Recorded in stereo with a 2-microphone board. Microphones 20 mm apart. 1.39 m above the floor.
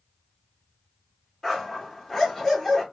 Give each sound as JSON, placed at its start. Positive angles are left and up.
{"t": 1.4, "sound": "a dog barking", "side_deg": 10, "distance_m": 1.1}